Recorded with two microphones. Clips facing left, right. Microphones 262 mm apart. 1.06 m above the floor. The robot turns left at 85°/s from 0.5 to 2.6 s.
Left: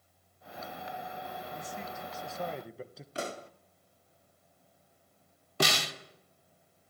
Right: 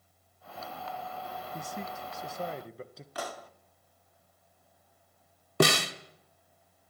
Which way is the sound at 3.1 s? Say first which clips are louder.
Left 2 dB; 25° left (ahead or behind).